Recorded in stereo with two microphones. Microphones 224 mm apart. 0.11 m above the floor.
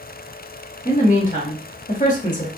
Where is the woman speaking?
35° left (ahead or behind), 1.8 m.